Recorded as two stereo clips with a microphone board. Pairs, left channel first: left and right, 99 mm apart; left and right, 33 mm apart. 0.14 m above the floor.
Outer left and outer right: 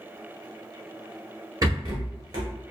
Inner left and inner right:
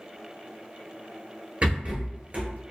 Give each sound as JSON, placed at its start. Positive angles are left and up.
{"t": 1.6, "sound": "a rattle", "side_deg": -40, "distance_m": 1.3}